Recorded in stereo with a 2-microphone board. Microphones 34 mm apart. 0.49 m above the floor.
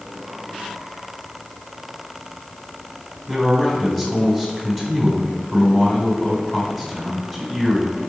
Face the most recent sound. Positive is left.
turn(degrees=10)  # may be behind; listen again after turning